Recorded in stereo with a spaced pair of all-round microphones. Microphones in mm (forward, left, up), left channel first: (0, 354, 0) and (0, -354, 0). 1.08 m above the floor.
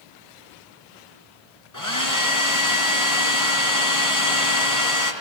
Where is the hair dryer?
25° left (ahead or behind), 4.5 m.